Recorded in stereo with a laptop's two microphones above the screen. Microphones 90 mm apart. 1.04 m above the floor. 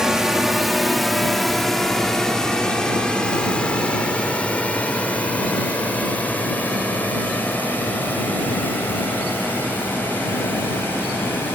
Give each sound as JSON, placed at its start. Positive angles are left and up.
{"t": 0.0, "sound": "a drone", "side_deg": -5}